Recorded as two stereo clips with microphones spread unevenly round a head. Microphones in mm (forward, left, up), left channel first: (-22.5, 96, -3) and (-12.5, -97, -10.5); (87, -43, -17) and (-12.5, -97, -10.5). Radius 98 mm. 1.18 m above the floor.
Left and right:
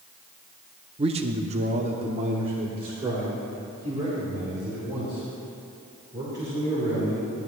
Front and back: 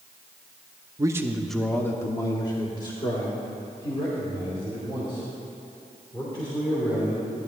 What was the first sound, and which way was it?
A man speaking, 120° right.